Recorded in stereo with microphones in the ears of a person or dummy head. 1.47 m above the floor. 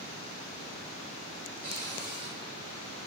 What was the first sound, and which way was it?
A cupboard door, 50° right (ahead or behind).